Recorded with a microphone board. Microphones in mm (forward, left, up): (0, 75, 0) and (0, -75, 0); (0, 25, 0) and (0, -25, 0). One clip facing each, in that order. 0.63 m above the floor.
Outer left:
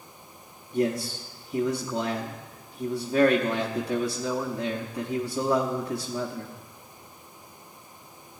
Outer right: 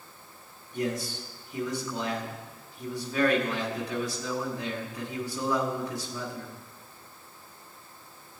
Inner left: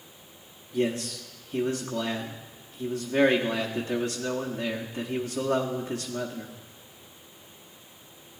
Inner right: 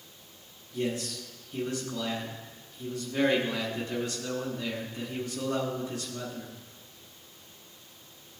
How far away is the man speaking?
About 1.0 m.